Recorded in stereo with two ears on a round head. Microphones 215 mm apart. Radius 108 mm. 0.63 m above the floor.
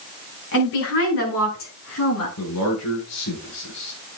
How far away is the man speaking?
About 7 m.